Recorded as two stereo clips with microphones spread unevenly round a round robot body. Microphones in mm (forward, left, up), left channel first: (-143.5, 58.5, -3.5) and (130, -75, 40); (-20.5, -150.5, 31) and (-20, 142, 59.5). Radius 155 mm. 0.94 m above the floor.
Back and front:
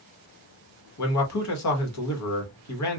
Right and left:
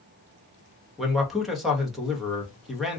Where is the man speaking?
Straight behind, 1.2 m.